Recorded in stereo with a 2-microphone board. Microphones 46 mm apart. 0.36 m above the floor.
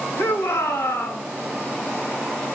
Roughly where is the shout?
Left.